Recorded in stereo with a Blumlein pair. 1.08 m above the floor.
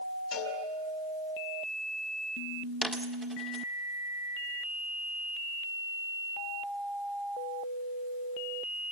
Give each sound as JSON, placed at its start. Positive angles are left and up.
{"t": 0.3, "sound": "a cowbell", "azimuth_deg": 35, "distance_m": 5.0}
{"t": 2.8, "sound": "a dropped coin", "azimuth_deg": 0, "distance_m": 1.4}